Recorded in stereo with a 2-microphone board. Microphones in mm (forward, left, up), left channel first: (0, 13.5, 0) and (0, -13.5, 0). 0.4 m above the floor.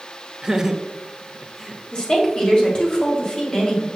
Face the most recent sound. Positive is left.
turn(degrees=30)  # may be behind; listen again after turning